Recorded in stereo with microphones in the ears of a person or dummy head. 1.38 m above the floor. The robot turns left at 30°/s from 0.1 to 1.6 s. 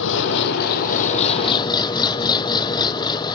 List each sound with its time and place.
0.0 s an engine running: 70° left; by 3.4 s 25° left